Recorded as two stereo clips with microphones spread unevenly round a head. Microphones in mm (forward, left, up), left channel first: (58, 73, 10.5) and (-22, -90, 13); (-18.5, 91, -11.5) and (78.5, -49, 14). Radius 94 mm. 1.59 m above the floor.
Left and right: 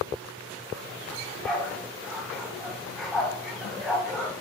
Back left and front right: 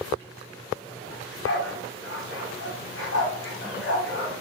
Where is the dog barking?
155° left, 3 m.